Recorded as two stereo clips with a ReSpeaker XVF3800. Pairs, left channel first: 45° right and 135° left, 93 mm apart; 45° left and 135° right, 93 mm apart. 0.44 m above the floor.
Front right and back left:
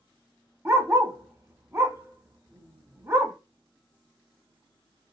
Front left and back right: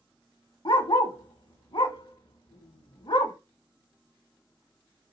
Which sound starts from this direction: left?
A dog barking, at 0.7 s.